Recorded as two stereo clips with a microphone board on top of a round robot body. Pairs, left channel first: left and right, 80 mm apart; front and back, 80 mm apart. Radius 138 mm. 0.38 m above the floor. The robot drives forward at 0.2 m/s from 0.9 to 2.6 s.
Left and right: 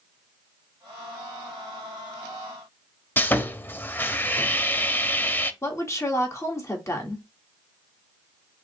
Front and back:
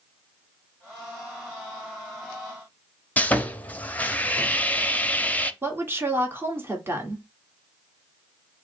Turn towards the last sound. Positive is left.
turn(degrees=130)